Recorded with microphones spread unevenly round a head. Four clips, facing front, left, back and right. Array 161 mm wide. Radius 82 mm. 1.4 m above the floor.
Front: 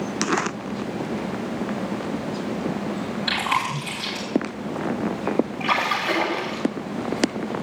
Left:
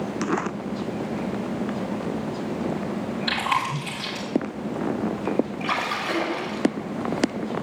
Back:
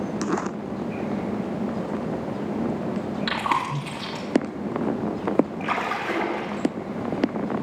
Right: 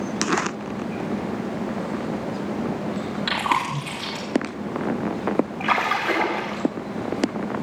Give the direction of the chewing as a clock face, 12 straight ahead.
4 o'clock.